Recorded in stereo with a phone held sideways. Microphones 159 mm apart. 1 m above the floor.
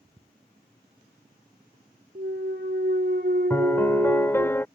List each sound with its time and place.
2.1 s a clunk: 75° right (ahead or behind)
3.5 s a piano: 15° left (ahead or behind)